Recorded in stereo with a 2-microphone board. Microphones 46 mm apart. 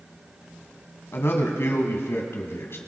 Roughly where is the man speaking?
Left.